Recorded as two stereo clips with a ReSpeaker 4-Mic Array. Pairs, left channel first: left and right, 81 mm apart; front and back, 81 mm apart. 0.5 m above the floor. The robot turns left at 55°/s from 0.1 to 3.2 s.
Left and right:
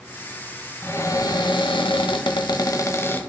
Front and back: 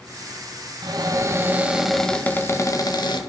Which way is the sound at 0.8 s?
150° left.